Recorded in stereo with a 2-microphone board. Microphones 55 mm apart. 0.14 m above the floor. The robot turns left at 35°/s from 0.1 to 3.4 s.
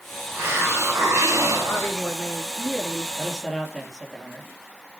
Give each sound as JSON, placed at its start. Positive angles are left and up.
{"t": 0.3, "sound": "a hiss", "azimuth_deg": -40, "distance_m": 4.5}
{"t": 1.7, "sound": "a woman speaking", "azimuth_deg": 60, "distance_m": 2.5}
{"t": 3.2, "sound": "a man speaking", "side_deg": -10, "distance_m": 3.0}